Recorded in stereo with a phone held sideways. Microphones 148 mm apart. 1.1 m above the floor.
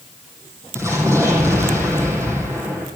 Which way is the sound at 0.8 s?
20° right (ahead or behind).